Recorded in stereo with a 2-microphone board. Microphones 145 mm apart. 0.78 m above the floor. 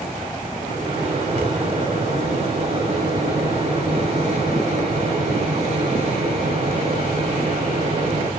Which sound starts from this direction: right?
A microwave, at 0.6 s.